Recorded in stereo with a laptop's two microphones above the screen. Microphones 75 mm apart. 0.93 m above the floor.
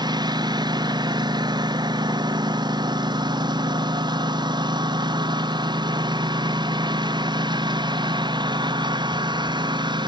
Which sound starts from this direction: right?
A lawn mower, at 0.0 s.